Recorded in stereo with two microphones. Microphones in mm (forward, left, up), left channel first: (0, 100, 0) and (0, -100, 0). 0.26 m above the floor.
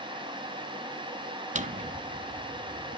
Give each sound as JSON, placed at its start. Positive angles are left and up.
{"t": 1.6, "sound": "a drawer", "side_deg": -40, "distance_m": 0.5}